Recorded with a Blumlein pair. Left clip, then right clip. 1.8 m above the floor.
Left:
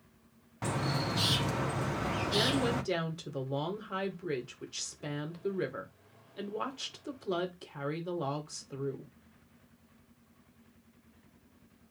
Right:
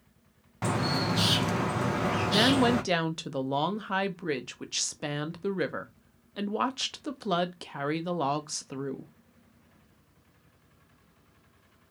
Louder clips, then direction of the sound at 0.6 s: Right 5 dB; 15° right.